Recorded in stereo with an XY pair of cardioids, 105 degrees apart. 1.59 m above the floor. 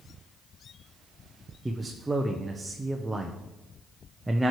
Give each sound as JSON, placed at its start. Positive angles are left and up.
{"t": 1.6, "sound": "a man speaking", "azimuth_deg": -15, "distance_m": 0.8}